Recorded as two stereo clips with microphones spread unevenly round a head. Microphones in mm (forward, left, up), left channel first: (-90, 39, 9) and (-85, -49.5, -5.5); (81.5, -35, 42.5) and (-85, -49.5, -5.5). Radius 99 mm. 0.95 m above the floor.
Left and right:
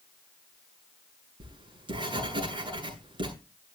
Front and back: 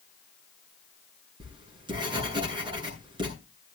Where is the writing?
110° right, 8.5 m.